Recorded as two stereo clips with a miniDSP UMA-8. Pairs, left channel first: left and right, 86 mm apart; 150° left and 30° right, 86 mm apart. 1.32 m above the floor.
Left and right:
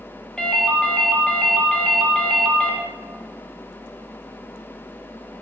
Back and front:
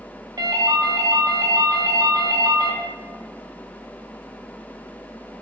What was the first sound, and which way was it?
A ringtone, 5° left.